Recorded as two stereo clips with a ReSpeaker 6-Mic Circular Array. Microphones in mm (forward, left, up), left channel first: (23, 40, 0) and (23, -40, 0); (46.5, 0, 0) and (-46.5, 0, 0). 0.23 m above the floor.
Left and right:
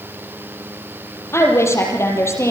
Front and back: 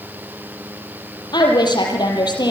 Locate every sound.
1.3 s a woman speaking: 35° left, 5.5 m